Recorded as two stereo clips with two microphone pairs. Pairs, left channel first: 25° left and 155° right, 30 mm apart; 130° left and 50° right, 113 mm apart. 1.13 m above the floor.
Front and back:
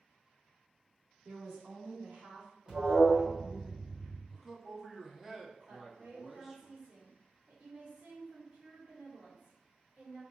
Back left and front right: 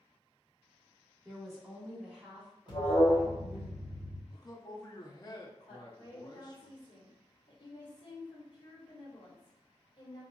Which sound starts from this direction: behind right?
A woman speaking, at 1.2 s.